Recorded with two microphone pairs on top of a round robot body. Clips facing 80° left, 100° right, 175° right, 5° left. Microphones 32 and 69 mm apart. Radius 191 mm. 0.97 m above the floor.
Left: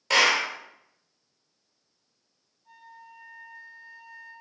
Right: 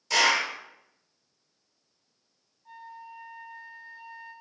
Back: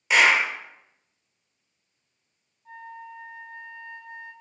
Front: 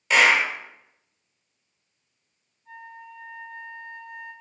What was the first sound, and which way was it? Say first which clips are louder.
A clap: left 2 dB, front 1 dB; 100° left.